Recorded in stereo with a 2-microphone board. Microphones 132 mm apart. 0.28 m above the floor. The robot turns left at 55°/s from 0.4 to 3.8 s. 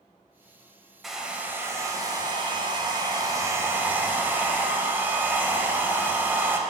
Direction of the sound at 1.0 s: Straight ahead.